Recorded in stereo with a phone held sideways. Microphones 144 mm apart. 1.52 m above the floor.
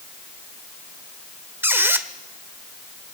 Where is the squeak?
15° right (ahead or behind), 1.3 m.